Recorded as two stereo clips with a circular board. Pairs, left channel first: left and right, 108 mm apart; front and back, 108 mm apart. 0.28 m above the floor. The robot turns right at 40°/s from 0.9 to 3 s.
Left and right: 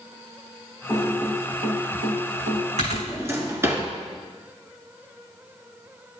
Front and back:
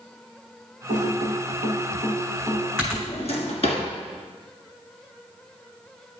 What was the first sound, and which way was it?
Typing on a keyboard, 175° right.